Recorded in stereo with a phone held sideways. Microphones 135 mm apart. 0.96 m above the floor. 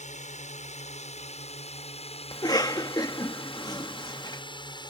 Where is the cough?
30° left (ahead or behind).